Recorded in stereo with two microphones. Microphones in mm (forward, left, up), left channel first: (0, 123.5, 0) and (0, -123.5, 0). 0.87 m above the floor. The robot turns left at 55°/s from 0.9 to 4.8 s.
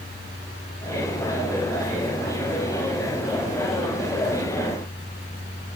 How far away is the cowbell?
No cowbell in this recording.